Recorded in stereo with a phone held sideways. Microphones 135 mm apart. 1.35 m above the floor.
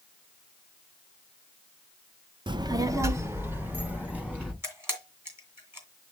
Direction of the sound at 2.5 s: 35° right (ahead or behind).